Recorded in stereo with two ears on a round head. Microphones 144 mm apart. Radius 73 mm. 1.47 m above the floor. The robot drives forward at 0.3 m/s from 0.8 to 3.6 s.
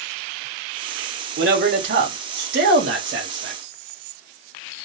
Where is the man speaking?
60° right (ahead or behind), 2 m; by 3.6 s 80° right, 1.8 m.